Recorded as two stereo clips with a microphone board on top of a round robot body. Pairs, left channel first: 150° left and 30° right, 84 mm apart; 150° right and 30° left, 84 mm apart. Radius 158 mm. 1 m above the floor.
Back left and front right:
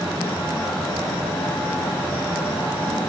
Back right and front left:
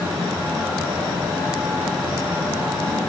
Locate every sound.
Only background noise.